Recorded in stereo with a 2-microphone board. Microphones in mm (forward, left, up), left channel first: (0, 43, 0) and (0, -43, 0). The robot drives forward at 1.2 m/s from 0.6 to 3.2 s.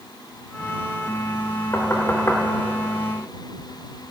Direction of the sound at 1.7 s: 25° left (ahead or behind).